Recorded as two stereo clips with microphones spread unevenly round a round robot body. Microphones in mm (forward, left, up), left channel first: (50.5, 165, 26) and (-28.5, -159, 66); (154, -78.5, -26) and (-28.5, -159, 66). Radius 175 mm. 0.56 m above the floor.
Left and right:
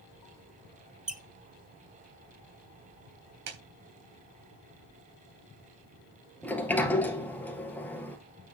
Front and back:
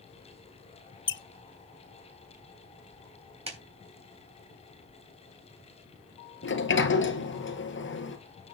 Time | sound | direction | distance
1.1 | a squeak | 15° right | 1.0 m
3.5 | a clap | 90° right | 3.5 m
6.4 | a sliding door | 10° right | 1.7 m